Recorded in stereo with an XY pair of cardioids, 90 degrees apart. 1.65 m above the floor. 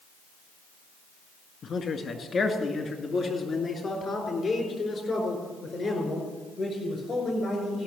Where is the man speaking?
45° left, 2 m; by 7.9 s 30° left, 7 m.